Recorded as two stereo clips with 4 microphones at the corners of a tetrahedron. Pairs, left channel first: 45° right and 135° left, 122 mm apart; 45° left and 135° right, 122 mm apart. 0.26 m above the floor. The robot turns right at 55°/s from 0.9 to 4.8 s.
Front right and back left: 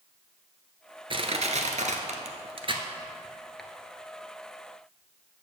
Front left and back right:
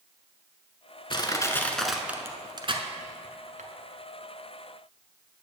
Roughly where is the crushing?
Left.